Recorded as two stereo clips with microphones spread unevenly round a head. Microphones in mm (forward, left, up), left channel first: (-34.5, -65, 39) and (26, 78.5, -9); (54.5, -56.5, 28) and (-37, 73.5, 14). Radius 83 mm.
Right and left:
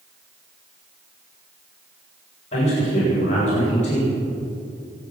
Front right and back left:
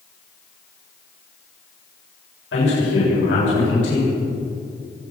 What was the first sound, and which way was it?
A man speaking, 65° right.